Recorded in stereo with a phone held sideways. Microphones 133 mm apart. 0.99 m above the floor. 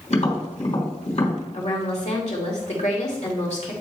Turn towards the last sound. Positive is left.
turn(degrees=55)  # may be behind; listen again after turning